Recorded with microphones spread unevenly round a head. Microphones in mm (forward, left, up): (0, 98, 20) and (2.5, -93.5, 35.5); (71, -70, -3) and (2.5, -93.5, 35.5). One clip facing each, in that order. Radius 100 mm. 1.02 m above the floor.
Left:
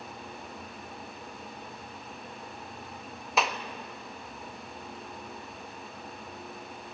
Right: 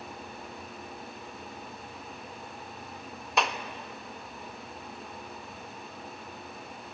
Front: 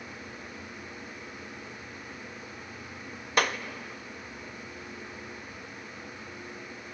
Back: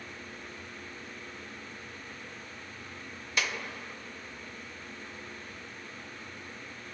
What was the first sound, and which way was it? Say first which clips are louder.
A clap: even, front 7 dB; 5° left.